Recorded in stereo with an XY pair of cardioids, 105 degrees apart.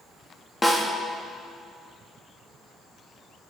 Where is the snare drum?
15° left, 2.5 m.